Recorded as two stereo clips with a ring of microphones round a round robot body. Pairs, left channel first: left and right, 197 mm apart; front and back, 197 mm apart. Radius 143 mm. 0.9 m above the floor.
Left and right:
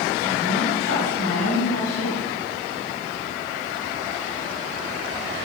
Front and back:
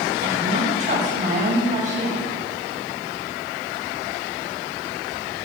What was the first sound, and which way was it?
A woman speaking, 145° left.